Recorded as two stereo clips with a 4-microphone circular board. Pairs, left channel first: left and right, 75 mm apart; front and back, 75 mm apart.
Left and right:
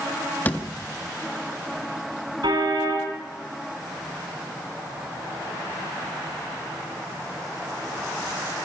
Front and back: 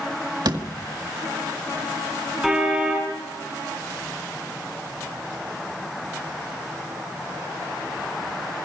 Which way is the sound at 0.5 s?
155° left.